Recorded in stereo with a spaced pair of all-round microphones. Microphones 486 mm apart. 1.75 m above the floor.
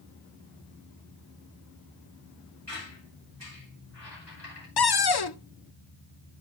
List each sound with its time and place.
2.7 s a squeak: 30° left (ahead or behind), 5 m
4.8 s a cupboard door: 55° left (ahead or behind), 0.6 m